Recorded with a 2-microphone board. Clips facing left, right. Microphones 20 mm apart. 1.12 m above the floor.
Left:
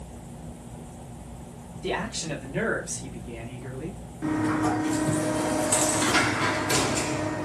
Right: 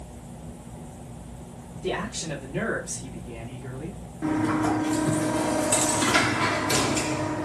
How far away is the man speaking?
About 2.5 m.